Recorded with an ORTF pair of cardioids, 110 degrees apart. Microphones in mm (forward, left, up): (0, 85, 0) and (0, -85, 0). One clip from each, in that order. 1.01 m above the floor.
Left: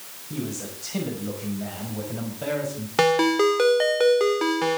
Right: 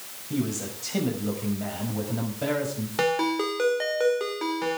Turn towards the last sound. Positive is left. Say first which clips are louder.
# left 6 dB
turn(degrees=35)